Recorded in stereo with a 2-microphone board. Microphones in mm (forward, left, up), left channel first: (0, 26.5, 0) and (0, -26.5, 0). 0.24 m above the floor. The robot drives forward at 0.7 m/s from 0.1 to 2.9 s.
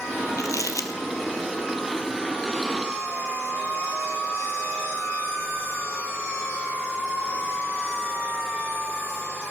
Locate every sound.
0.4 s crumpling: 80° left, 1.5 m; by 0.9 s 85° left, 1.5 m